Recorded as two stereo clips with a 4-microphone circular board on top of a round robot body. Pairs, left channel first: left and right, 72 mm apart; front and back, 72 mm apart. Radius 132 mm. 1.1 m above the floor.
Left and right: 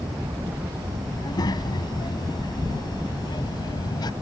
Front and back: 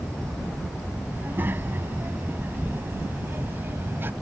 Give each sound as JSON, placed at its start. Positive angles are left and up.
{"t": 1.1, "sound": "a child speaking", "azimuth_deg": 115}